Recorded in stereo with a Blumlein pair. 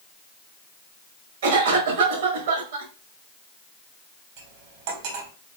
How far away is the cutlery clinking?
About 1.5 m.